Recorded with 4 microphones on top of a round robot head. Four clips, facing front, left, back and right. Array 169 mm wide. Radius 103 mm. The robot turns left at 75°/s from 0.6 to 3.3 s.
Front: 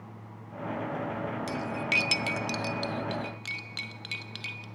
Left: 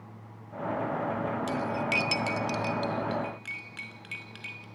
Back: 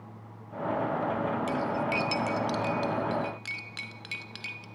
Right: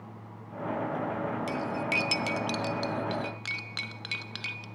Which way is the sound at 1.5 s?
45° left.